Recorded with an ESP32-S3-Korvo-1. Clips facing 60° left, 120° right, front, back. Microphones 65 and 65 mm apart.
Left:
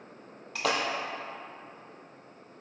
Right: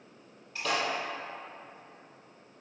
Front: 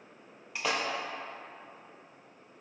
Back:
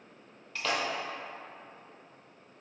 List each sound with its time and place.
0.6 s a splash: 75° left, 0.5 m